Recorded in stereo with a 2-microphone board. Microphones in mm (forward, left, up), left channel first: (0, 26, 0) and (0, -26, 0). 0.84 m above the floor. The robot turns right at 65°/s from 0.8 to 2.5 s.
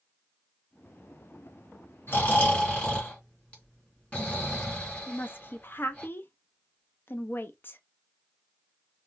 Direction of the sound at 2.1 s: 50° left (ahead or behind).